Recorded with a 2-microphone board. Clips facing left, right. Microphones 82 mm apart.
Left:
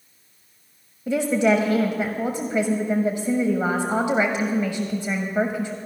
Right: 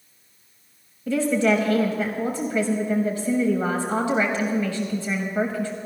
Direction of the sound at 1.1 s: 20° left (ahead or behind).